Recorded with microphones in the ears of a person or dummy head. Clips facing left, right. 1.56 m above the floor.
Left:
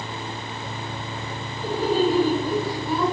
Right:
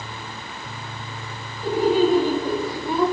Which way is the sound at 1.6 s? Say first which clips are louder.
Right 3 dB; 25° right (ahead or behind).